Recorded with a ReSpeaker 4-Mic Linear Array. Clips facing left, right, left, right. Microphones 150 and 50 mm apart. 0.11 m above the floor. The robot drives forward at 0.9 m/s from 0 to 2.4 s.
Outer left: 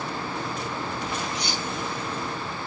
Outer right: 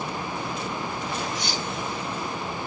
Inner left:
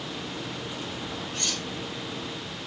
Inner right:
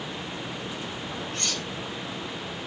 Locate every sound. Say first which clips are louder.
1.3 s cutlery clinking: even, inner right 1 dB; 45° right (ahead or behind), 4.5 m; by 1.6 s 40° right (ahead or behind), 4.5 m